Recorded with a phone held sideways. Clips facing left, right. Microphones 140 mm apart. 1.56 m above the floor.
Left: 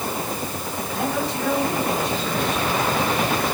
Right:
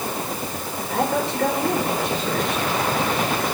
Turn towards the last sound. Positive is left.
turn(degrees=-75)  # may be behind; listen again after turning